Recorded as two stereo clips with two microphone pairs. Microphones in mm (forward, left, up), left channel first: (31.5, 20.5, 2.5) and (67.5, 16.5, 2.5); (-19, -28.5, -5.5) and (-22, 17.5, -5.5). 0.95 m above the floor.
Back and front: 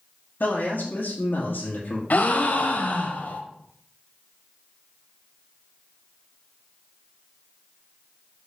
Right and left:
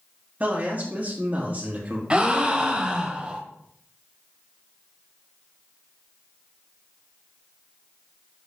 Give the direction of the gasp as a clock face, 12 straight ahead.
7 o'clock.